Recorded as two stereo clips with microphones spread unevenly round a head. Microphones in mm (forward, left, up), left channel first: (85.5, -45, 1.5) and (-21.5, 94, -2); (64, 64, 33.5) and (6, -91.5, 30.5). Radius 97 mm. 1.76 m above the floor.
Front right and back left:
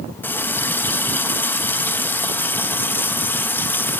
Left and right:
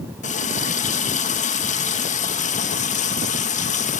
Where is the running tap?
25° left, 1.7 m.